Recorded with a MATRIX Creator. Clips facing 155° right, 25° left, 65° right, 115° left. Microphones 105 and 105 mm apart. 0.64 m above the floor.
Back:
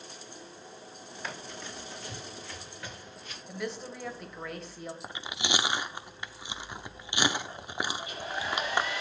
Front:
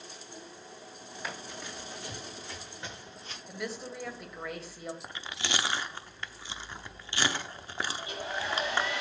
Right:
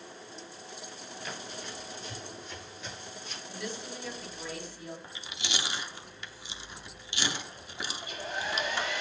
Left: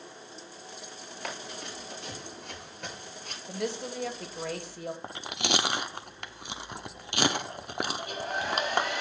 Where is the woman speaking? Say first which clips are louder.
Back 1 dB, left 7 dB; 110° left, 3 m.